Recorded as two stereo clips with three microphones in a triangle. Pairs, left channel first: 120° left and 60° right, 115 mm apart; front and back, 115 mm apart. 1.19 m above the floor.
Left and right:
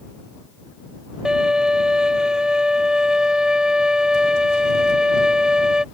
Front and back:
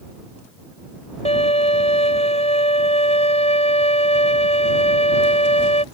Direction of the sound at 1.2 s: 25° left.